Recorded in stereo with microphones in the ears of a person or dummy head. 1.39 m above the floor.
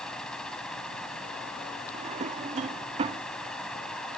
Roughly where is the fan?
Centre.